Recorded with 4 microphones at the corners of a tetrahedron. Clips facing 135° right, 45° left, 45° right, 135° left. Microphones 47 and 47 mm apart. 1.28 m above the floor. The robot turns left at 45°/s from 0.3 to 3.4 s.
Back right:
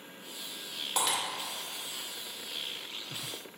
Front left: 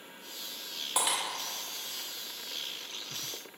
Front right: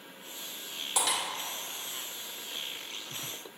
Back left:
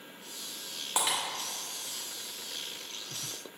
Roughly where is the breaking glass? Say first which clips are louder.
Even, even; behind left.